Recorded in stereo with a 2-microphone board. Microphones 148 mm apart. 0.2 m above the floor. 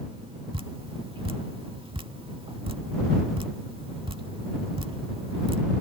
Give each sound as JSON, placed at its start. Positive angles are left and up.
{"t": 0.5, "sound": "dripping", "side_deg": -35}